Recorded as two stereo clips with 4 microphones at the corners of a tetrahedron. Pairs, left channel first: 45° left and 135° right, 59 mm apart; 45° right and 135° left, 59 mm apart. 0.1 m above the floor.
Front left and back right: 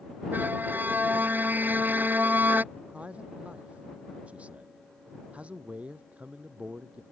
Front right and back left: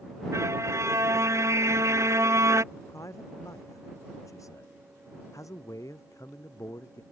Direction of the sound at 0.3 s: 170° left.